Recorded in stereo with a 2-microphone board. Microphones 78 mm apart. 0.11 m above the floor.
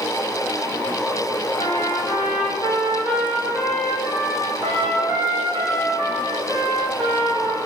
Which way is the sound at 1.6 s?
75° right (ahead or behind).